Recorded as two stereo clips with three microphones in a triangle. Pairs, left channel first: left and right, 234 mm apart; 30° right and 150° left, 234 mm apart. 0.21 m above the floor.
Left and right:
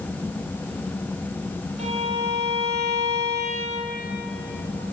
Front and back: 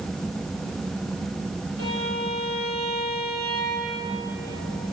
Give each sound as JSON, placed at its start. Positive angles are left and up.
{"t": 1.8, "sound": "a violin", "azimuth_deg": -30, "distance_m": 5.0}